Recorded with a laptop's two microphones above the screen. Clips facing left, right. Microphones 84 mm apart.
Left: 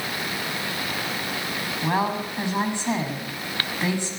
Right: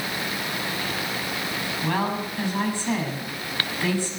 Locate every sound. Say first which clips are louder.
1.8 s a woman speaking: left 2 dB; 20° left (ahead or behind), 7 m